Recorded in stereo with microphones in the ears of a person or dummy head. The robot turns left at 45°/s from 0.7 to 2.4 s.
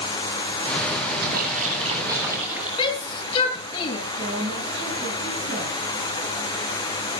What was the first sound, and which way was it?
A splash, 120° right.